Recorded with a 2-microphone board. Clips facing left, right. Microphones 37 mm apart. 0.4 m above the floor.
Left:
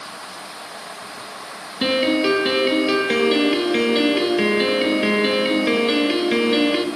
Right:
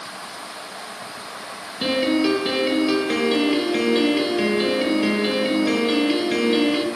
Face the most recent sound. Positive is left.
turn(degrees=25)  # may be behind; listen again after turning